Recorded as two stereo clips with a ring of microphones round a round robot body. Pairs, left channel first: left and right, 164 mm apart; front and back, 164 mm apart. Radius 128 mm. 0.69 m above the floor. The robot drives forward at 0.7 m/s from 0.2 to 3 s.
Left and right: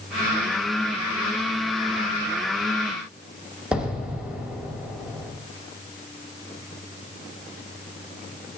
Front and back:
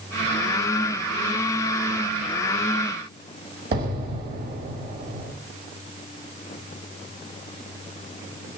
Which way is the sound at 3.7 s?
175° right.